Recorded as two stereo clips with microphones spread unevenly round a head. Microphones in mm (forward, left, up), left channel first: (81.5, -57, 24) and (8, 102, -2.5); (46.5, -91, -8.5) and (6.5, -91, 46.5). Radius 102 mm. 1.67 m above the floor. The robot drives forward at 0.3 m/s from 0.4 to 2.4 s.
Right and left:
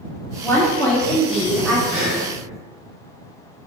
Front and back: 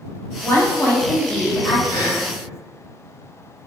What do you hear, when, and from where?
0.4 s a woman speaking: 120° right, 0.6 m; by 1.8 s 155° right, 0.8 m
1.9 s breathing: 120° left, 1.1 m; by 2.2 s 125° left, 1.1 m